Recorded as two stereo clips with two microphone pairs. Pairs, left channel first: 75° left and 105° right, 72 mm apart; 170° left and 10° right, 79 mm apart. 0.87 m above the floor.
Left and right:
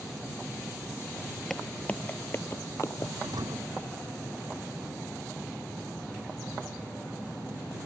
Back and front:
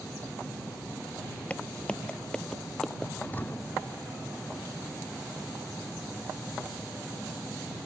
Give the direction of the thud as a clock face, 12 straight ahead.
4 o'clock.